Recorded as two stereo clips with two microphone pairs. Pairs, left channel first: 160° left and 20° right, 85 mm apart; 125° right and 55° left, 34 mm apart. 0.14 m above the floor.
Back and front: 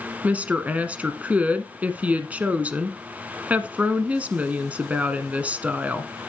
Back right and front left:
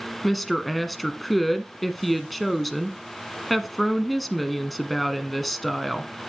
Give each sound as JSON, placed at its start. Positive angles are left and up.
{"t": 0.2, "sound": "a woman speaking", "azimuth_deg": -45, "distance_m": 1.0}